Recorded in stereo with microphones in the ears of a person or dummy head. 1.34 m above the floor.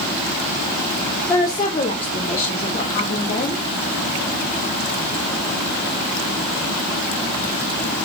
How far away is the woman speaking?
About 0.5 m.